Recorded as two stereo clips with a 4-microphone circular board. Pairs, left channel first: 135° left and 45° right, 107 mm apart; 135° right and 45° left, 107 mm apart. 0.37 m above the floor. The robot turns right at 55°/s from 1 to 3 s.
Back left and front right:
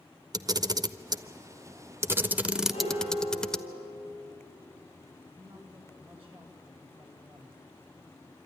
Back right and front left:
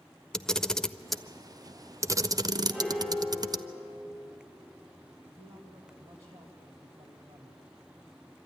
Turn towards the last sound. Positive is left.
turn(degrees=20)